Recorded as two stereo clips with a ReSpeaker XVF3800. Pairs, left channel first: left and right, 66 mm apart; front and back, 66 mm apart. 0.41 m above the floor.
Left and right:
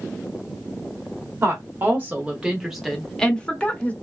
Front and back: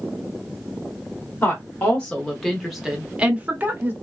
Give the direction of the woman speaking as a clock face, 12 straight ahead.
2 o'clock.